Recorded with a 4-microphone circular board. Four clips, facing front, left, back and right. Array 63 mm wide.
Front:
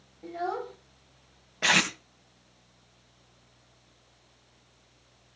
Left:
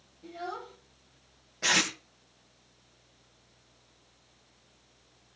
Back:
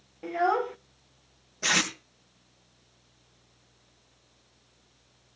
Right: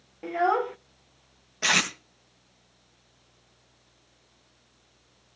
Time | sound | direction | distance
0.2 | a child speaking | 120° right | 0.6 m
1.6 | tape being pulled | 20° right | 3 m